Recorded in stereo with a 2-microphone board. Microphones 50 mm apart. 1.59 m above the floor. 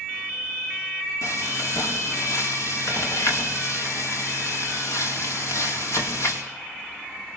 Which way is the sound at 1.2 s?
75° left (ahead or behind).